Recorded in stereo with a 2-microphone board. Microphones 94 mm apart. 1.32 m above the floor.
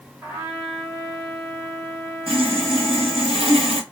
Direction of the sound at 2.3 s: 75° right (ahead or behind).